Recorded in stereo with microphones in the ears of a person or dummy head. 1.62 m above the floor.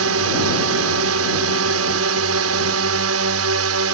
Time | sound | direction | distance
0.0 | a drone | 70° right (ahead or behind) | ?